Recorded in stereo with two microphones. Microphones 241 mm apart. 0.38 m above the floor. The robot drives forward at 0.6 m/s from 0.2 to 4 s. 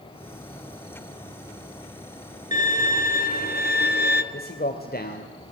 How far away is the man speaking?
About 2.0 m.